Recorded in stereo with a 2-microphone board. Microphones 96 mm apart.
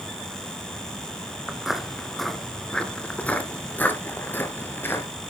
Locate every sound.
1.5 s footsteps: 5° right (ahead or behind), 1.2 m; by 5.1 s 25° left (ahead or behind), 1.8 m